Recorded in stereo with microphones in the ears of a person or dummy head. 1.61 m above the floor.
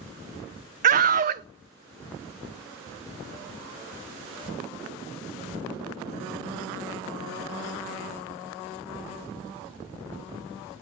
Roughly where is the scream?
Right.